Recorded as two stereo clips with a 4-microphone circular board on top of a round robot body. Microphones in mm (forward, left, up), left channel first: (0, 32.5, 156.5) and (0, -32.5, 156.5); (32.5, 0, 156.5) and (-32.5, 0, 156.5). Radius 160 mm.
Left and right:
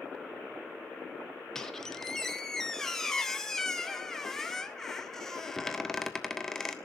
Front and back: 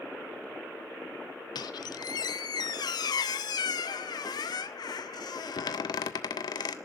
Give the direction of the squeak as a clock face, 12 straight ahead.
12 o'clock.